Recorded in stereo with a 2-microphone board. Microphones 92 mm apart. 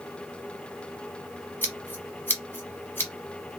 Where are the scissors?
25° left (ahead or behind), 1.0 m.